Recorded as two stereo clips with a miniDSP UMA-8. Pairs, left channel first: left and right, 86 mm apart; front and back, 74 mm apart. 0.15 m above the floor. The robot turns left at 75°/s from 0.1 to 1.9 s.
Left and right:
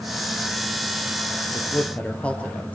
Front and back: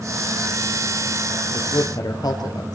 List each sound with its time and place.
1.5 s a man speaking: 45° left, 3 m; by 2.8 s 15° left, 3 m